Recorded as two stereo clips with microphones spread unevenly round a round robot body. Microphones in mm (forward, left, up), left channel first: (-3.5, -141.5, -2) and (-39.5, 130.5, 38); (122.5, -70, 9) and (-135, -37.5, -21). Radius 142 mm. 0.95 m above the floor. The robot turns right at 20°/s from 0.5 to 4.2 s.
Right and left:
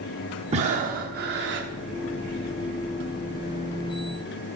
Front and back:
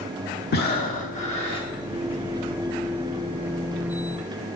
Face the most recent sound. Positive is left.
turn(degrees=110)